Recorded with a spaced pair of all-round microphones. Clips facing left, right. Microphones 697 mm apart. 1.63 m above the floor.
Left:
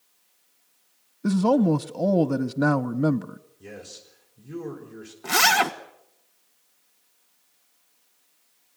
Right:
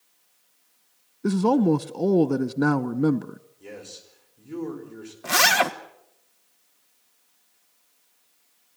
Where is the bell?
I don't hear a bell.